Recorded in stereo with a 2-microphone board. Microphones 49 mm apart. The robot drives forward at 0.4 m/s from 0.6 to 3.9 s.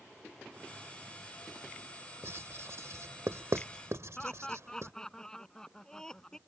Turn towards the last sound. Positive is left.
turn(degrees=10)  # may be behind; listen again after turning